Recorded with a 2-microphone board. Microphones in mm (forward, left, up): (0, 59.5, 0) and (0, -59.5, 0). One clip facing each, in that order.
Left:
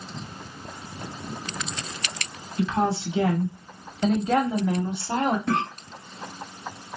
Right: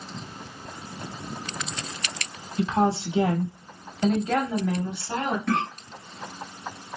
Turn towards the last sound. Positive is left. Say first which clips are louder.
# even
turn(degrees=25)  # may be behind; listen again after turning